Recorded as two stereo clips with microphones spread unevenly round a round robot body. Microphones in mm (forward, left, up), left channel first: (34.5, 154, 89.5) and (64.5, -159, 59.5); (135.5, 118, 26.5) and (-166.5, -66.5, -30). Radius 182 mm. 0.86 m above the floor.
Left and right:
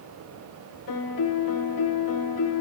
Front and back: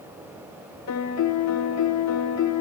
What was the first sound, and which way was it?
A piano, 70° left.